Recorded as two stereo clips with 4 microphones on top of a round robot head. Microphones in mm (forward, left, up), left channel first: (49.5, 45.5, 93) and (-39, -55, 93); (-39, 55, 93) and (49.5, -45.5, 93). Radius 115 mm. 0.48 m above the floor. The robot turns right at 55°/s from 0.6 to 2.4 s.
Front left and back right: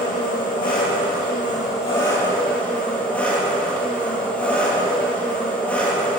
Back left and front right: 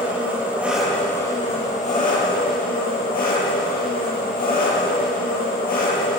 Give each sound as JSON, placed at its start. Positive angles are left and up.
{"t": 0.0, "sound": "an engine running", "azimuth_deg": 30, "distance_m": 9.0}